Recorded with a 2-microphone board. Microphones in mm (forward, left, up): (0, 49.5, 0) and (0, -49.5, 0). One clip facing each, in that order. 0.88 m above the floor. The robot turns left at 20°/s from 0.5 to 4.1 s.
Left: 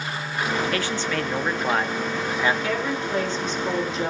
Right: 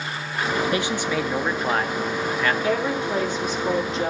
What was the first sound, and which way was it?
A man speaking, 160° right.